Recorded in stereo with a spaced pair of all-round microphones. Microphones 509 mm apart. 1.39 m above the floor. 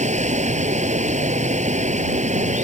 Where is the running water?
15° right (ahead or behind).